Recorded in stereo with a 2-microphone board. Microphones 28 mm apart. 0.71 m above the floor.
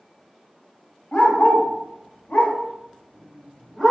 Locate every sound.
1.1 s a dog barking: 60° left (ahead or behind), 1.4 m; by 3.9 s 10° left (ahead or behind), 1.2 m